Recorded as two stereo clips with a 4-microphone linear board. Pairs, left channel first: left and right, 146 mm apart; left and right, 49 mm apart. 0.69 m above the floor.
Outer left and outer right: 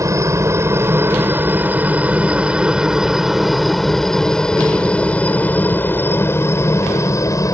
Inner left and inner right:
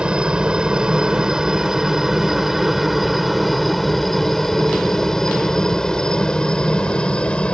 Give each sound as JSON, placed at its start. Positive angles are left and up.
{"t": 0.0, "sound": "a helicopter", "side_deg": -20}